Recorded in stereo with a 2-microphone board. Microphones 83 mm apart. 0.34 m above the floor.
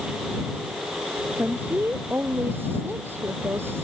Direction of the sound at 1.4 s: 20° right (ahead or behind).